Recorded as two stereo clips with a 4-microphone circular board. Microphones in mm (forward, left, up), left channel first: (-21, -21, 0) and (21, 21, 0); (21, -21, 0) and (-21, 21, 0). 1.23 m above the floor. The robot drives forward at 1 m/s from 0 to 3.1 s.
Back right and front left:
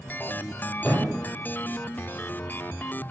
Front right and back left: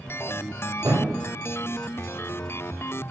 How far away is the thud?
About 9 m.